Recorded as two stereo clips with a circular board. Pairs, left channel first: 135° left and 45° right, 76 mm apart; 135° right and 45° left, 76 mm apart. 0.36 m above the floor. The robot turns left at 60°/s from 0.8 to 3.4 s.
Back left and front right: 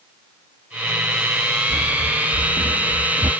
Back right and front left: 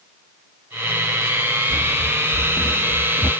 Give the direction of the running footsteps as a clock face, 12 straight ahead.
12 o'clock.